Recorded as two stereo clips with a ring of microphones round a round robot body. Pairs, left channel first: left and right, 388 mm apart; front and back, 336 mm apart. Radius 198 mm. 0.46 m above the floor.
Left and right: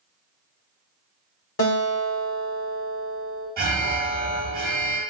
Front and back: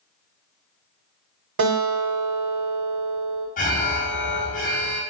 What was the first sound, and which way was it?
A guitar, 145° left.